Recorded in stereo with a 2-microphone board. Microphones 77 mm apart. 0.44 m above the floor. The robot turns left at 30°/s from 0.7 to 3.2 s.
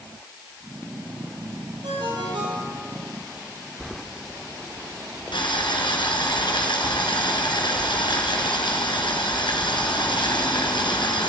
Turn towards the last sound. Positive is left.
turn(degrees=85)